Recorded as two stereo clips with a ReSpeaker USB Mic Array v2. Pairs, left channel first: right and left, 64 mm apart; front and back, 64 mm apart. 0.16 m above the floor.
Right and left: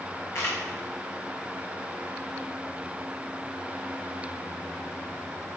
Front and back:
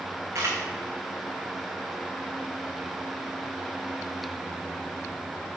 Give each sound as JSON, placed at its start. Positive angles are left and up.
{"t": 0.3, "sound": "a camera shutter", "azimuth_deg": -140, "distance_m": 2.5}